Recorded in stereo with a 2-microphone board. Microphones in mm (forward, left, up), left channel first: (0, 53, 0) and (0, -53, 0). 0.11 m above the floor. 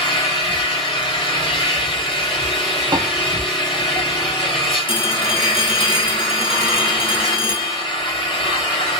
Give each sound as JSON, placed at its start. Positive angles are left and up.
{"t": 0.0, "sound": "an engine running", "side_deg": 65, "distance_m": 1.6}
{"t": 2.9, "sound": "a piano", "side_deg": -45, "distance_m": 0.7}
{"t": 4.9, "sound": "a phone ringing", "side_deg": 60, "distance_m": 1.5}